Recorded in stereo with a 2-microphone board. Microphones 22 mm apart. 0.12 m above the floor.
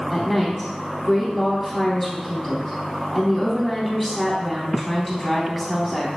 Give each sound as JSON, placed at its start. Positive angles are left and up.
{"t": 0.1, "sound": "a woman speaking", "side_deg": 0, "distance_m": 3.0}